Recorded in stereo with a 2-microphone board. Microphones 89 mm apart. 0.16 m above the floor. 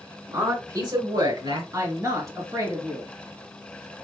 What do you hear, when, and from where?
0.3 s a man speaking: 35° right (ahead or behind), 1.6 m; by 1.6 s 55° right (ahead or behind), 2.5 m
1.7 s a woman speaking: 35° right (ahead or behind), 2.5 m